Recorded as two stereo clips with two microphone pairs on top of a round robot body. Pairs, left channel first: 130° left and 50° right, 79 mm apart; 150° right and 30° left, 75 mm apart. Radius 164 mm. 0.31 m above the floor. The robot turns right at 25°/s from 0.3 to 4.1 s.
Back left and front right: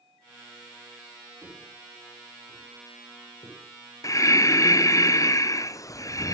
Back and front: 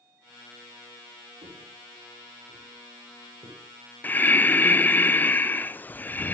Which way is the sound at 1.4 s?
15° left.